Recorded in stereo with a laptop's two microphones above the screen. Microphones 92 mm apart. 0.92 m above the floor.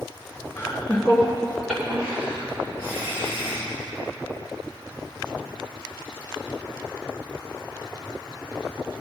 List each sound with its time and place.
0.6 s laughter: 35° left (ahead or behind), 1.5 m; by 3.7 s 25° right (ahead or behind), 4.5 m